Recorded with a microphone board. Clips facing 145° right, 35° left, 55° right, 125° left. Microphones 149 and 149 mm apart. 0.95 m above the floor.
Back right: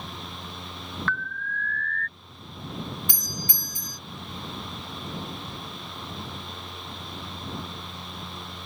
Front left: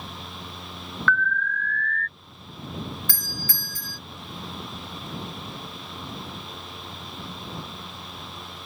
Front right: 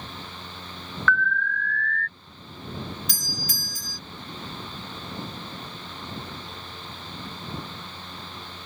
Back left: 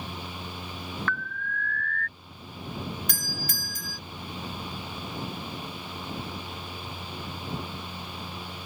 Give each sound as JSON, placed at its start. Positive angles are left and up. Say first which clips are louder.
{"t": 1.1, "sound": "an alarm", "louder": "front left 11 dB, front right 8 dB", "azimuth_deg": 170}
{"t": 3.1, "sound": "a doorbell", "louder": "even, even", "azimuth_deg": 145}